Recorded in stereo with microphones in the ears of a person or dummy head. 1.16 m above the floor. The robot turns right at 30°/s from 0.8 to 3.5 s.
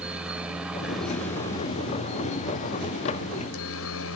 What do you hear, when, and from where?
0.0 s a helicopter: centre (ahead or behind); by 4.2 s 75° left (ahead or behind)